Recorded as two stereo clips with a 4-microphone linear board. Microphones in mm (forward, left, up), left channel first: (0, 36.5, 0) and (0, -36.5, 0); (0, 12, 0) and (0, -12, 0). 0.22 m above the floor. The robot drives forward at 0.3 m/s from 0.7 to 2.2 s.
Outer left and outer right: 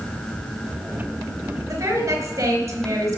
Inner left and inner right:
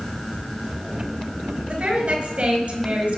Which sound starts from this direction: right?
A woman speaking, at 1.7 s.